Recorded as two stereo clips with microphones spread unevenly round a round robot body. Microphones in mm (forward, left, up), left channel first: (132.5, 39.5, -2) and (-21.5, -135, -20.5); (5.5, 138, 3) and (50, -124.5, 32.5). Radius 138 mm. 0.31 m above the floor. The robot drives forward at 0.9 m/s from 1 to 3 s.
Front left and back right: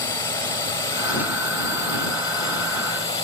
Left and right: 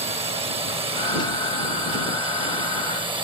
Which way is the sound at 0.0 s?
20° right.